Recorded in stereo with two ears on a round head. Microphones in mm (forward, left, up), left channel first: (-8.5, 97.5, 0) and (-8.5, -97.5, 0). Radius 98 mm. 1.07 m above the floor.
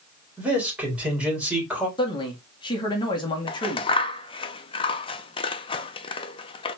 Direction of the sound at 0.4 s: 5° right (ahead or behind).